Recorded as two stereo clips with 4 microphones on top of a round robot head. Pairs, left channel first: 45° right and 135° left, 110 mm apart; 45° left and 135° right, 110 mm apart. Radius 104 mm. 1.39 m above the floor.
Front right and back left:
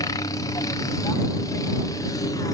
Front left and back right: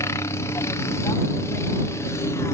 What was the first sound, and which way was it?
A helicopter, 5° right.